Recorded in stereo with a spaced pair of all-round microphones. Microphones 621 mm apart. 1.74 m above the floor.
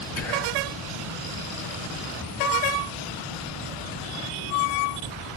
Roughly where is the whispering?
Left.